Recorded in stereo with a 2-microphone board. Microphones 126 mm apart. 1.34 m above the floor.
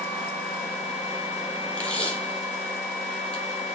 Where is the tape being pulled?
10° left (ahead or behind), 0.9 m.